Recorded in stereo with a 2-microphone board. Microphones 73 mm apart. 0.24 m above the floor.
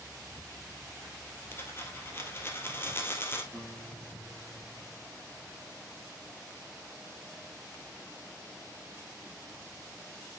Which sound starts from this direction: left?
A dropped coin, at 1.5 s.